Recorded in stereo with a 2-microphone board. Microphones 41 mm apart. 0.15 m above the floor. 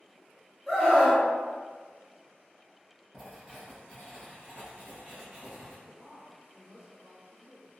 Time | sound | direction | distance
0.7 | a scream | centre (ahead or behind) | 1.4 m
3.1 | writing | 35° right (ahead or behind) | 1.9 m
5.8 | a woman speaking | 20° right (ahead or behind) | 1.8 m